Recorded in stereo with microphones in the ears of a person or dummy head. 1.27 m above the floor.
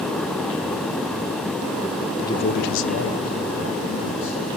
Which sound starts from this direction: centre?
A man speaking, at 2.2 s.